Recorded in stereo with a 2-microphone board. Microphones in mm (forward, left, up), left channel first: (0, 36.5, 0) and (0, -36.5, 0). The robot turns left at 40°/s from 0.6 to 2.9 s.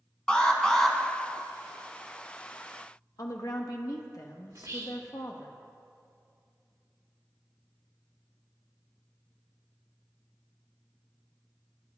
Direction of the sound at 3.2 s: 60° left (ahead or behind).